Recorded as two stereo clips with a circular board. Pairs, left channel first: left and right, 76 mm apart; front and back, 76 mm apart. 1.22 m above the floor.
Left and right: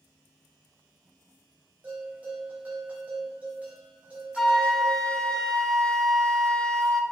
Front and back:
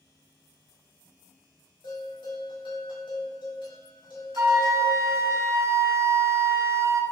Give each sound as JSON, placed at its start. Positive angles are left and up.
{"t": 1.8, "sound": "a bell", "azimuth_deg": -20, "distance_m": 2.0}
{"t": 4.4, "sound": "a flute", "azimuth_deg": 165, "distance_m": 0.5}